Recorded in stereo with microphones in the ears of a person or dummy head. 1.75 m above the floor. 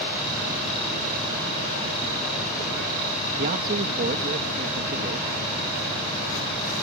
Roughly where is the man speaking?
Right.